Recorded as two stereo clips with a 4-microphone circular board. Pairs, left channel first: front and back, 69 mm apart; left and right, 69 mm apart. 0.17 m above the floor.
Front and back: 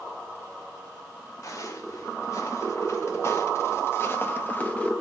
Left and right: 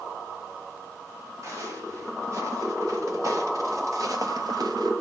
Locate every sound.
1.4 s footsteps: 45° right, 3.5 m; by 4.9 s 75° right, 0.7 m